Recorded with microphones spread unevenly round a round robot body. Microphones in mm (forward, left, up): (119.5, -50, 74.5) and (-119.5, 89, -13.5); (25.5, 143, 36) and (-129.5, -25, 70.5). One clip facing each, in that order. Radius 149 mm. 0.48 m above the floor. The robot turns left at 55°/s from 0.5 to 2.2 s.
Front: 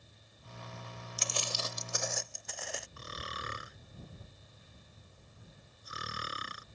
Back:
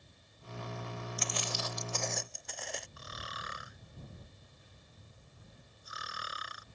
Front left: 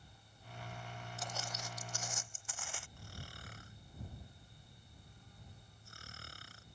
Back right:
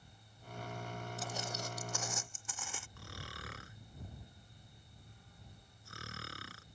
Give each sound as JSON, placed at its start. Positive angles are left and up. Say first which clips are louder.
{"t": 1.2, "sound": "footsteps", "louder": "front 2 dB, back right 2 dB", "azimuth_deg": -50}
{"t": 3.0, "sound": "snoring", "louder": "front 3 dB, back right 3 dB", "azimuth_deg": -90}